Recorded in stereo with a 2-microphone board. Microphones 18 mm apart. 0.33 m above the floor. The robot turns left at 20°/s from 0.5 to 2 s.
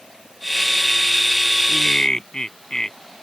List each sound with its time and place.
1.7 s laughter: 45° left (ahead or behind); by 3.0 s 40° left (ahead or behind)